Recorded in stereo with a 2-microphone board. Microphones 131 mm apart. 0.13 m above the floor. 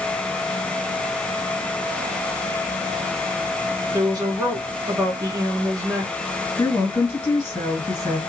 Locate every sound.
3.9 s a woman speaking: 30° right (ahead or behind), 1.4 m
6.6 s a woman speaking: 20° left (ahead or behind), 1.2 m